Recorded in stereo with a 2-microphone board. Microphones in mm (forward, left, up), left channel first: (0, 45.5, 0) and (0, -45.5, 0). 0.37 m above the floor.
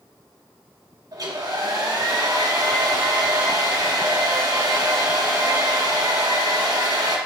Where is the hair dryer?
45° right (ahead or behind), 2.0 m.